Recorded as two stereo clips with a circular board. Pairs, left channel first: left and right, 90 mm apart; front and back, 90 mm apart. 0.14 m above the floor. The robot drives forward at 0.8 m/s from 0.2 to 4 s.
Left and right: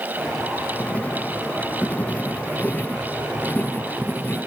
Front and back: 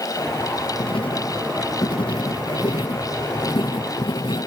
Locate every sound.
0.8 s writing: 15° left; by 4.5 s 20° left